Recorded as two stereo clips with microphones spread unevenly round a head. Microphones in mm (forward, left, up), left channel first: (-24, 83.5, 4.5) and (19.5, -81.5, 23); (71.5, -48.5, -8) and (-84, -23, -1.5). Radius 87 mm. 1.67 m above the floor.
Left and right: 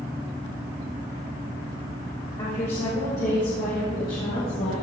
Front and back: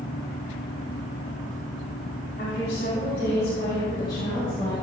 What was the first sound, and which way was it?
A woman speaking, 45° left.